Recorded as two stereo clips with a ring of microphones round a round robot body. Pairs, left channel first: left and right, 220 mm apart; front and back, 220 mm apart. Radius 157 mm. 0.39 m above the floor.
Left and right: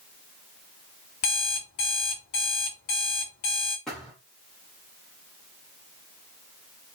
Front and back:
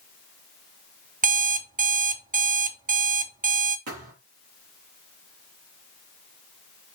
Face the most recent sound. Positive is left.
turn(degrees=180)